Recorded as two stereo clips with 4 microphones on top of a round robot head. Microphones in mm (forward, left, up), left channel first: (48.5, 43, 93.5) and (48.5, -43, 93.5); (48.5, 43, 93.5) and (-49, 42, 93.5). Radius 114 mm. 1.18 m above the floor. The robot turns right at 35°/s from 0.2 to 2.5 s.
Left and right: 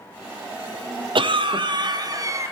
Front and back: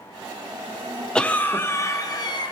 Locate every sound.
1.1 s a cough: 80° right, 0.8 m; by 2.5 s 30° right, 0.8 m